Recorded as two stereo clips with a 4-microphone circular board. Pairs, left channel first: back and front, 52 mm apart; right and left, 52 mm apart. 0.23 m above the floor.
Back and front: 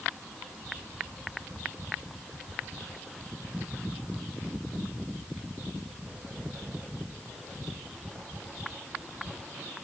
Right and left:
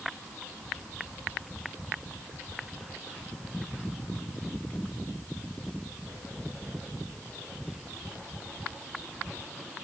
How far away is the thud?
I don't hear a thud.